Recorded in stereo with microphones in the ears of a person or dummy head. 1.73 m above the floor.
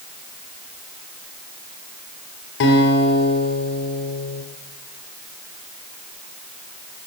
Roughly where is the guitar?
Left.